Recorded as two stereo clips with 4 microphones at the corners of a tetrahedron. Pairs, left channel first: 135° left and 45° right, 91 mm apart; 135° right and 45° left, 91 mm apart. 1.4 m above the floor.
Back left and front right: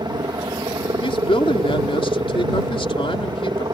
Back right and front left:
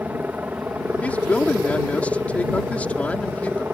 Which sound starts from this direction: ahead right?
A helicopter, at 0.0 s.